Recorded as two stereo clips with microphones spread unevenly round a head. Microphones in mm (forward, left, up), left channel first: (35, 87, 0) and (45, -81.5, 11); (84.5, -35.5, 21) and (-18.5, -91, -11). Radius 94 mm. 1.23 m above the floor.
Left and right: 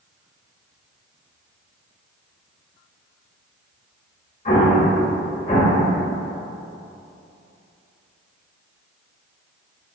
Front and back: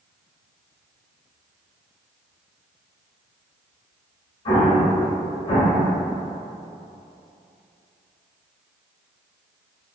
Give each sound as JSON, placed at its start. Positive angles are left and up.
{"t": 4.5, "sound": "an explosion", "azimuth_deg": 50, "distance_m": 1.4}